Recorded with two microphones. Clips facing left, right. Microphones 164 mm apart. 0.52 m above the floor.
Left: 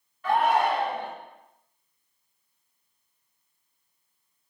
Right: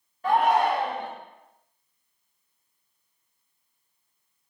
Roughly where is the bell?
I don't hear a bell.